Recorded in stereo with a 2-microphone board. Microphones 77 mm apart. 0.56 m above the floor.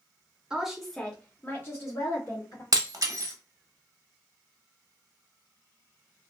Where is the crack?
No crack in this recording.